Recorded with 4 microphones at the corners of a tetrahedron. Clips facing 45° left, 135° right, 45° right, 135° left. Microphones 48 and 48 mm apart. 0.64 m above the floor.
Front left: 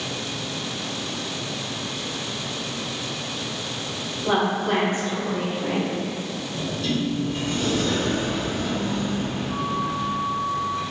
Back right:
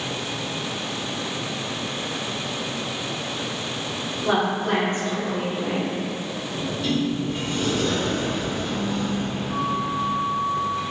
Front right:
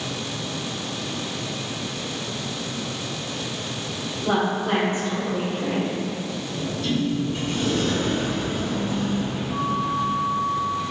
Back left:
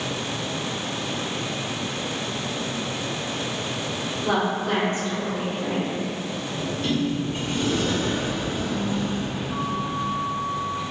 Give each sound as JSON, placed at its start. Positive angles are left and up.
{"t": 4.2, "sound": "a woman speaking", "azimuth_deg": -155, "distance_m": 1.4}
{"t": 6.5, "sound": "a sliding door", "azimuth_deg": 170, "distance_m": 0.7}